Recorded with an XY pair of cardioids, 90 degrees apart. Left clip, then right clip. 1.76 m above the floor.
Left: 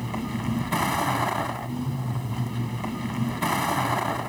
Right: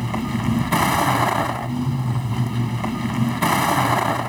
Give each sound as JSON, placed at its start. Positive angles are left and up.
{"t": 0.0, "sound": "a vehicle", "azimuth_deg": -45}